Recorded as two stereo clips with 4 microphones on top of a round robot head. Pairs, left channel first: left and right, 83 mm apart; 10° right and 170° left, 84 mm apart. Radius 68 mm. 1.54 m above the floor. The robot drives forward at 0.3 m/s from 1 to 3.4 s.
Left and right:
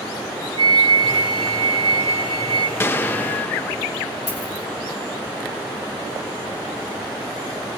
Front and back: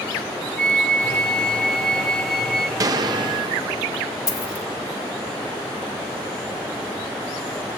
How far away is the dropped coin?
About 3 m.